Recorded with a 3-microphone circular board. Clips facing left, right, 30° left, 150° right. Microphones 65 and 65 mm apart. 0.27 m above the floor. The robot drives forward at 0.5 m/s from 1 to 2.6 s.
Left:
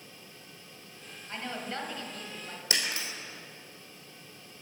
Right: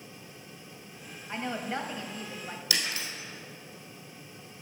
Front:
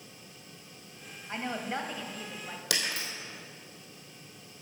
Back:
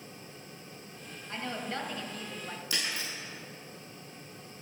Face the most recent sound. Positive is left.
turn(degrees=30)